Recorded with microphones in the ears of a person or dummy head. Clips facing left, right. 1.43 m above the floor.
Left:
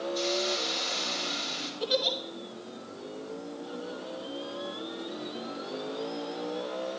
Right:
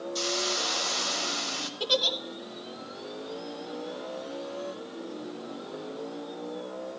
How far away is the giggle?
About 1.7 m.